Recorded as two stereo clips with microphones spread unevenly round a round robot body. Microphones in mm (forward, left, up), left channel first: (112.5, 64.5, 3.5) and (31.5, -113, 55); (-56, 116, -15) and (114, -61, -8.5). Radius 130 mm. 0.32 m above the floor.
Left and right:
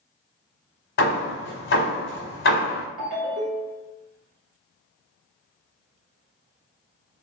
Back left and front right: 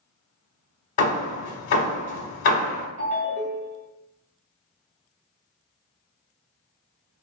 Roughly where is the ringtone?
Right.